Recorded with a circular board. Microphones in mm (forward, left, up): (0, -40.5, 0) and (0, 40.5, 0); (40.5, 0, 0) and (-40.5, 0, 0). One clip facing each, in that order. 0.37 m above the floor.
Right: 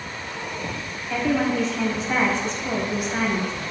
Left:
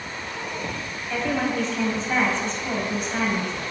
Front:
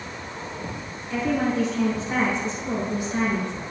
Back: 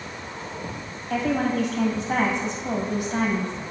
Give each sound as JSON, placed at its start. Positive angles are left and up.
{"t": 1.1, "sound": "a woman speaking", "azimuth_deg": -175, "distance_m": 2.5}